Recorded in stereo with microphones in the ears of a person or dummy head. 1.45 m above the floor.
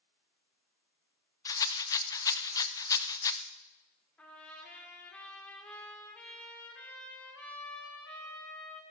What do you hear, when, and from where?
1.4 s a rattle: 20° left (ahead or behind), 0.6 m
4.2 s a trumpet: 10° left (ahead or behind), 3 m